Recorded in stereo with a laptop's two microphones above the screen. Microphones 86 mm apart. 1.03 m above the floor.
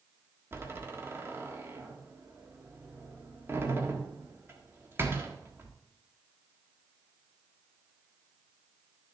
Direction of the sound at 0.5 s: 30° right (ahead or behind).